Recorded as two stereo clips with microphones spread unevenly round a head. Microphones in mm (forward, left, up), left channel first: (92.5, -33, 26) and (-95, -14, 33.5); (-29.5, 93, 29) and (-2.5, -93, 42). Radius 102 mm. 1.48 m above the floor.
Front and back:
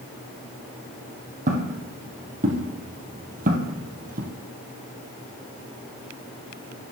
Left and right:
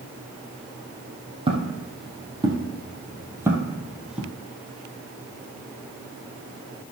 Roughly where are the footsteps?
Behind right.